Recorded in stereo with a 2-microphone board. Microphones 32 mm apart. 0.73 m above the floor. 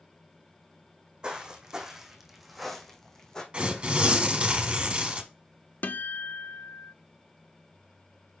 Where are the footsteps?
30° right (ahead or behind), 1.5 m; by 3.4 s 20° left (ahead or behind), 1.4 m.